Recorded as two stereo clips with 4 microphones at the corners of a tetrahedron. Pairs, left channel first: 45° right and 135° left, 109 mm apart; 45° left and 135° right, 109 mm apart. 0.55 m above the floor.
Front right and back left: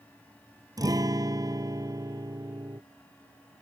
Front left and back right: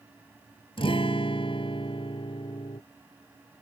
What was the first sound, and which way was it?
A guitar, 80° left.